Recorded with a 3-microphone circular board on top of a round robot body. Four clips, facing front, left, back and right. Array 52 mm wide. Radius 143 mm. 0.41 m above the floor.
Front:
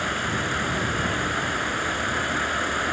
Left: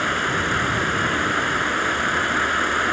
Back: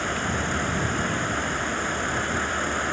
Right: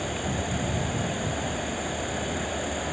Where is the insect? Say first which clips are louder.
Left 9 dB, front 1 dB; 90° left.